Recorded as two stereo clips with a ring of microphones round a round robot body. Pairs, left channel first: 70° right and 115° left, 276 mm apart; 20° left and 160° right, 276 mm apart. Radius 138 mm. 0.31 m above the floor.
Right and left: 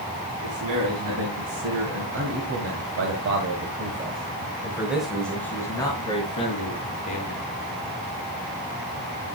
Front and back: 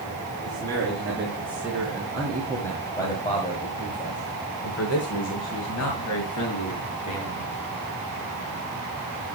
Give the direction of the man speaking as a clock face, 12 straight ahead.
8 o'clock.